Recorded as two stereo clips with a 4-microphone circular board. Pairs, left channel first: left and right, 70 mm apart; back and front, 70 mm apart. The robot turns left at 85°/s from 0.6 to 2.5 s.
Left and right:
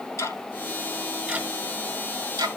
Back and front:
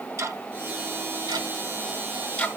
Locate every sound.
0.2 s ticking: 50° left, 1.5 m; by 2.5 s 110° right, 1.5 m